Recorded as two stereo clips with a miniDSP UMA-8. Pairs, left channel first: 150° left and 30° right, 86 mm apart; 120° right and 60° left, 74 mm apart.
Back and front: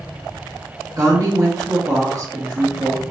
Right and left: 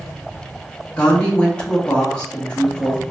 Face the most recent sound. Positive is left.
turn(degrees=-50)